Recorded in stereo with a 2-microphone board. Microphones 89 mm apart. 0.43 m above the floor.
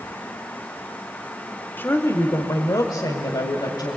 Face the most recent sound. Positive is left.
turn(degrees=55)  # may be behind; listen again after turning